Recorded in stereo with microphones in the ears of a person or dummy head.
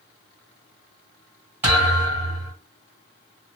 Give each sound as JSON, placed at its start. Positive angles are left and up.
{"t": 1.6, "sound": "a thud", "side_deg": -15, "distance_m": 1.7}